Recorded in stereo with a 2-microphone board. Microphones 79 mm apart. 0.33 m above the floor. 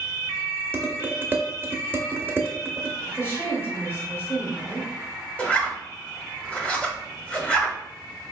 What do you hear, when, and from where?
0.7 s dishes clattering: 25° right (ahead or behind), 0.6 m
3.1 s a woman speaking: 30° left (ahead or behind), 1.3 m
5.4 s a zipper: 15° left (ahead or behind), 0.8 m